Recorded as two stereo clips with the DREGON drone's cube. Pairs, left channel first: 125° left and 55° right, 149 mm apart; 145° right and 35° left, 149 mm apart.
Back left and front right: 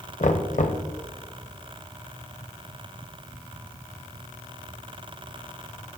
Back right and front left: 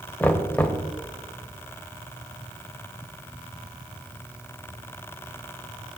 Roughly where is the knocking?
Behind left.